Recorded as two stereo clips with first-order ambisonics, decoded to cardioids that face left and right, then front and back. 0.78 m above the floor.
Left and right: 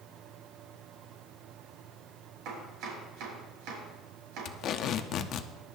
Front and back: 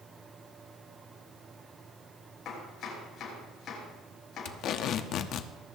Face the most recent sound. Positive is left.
turn(degrees=45)